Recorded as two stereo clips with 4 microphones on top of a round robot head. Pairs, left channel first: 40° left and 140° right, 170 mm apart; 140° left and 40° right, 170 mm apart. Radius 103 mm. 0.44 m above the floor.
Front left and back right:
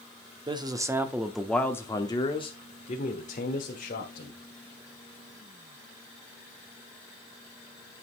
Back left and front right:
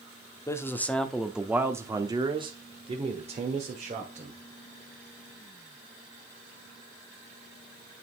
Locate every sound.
0.5 s a man speaking: 165° right, 1.1 m; by 4.4 s 5° left, 2 m